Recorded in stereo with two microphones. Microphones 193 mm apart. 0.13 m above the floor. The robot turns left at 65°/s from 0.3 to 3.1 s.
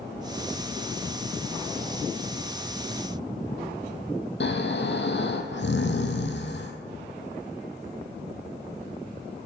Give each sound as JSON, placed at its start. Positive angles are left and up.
{"t": 4.4, "sound": "snoring", "side_deg": 70, "distance_m": 1.0}